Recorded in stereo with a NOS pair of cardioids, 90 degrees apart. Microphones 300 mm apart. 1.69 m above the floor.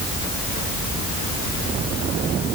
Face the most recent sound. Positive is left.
No sound to turn to.